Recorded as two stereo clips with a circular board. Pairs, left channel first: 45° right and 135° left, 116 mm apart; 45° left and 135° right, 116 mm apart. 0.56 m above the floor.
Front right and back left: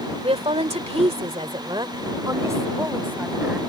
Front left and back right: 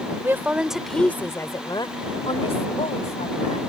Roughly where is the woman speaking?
Behind.